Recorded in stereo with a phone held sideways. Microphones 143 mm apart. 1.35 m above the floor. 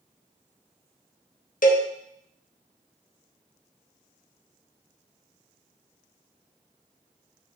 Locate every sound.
1.6 s a cowbell: 70° left (ahead or behind), 1.1 m